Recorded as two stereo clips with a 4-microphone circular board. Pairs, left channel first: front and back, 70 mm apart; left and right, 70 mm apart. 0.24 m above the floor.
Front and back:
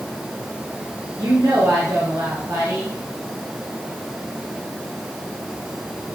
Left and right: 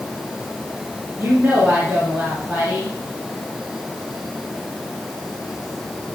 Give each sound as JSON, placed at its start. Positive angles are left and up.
{"t": 1.2, "sound": "a woman speaking", "azimuth_deg": -165, "distance_m": 3.5}